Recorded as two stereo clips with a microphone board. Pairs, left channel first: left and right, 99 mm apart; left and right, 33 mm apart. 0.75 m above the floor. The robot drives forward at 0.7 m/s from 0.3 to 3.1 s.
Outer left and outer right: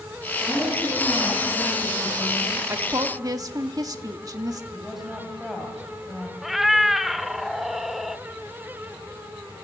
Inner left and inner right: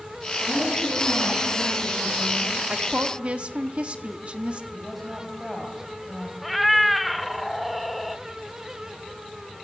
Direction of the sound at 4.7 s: Centre (ahead or behind).